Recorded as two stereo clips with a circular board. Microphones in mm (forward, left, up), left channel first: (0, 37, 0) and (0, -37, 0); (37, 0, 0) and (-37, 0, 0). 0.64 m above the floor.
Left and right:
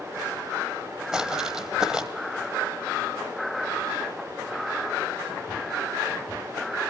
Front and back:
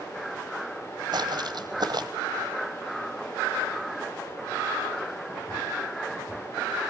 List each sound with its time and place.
1.1 s footsteps: 170° right, 1.3 m